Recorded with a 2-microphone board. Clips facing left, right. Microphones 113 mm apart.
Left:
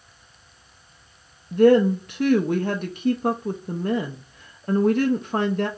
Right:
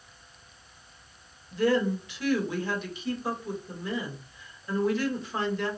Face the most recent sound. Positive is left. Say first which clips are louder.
# left 10 dB
turn(degrees=55)  # may be behind; listen again after turning